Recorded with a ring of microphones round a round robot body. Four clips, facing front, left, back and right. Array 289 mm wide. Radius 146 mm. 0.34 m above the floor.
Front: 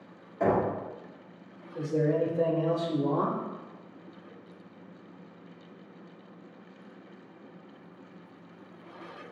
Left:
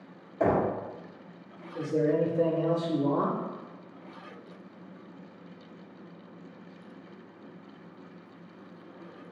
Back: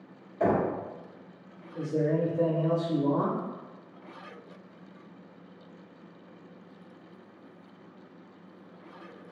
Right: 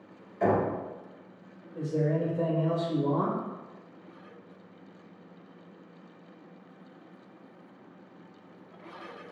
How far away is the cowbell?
I don't hear a cowbell.